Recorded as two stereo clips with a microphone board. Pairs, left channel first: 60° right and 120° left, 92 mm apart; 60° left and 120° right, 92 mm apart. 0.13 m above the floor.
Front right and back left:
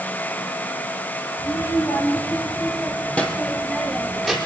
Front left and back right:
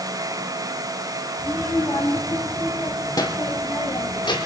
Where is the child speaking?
15° right, 3 m; by 4.4 s 30° left, 4.5 m.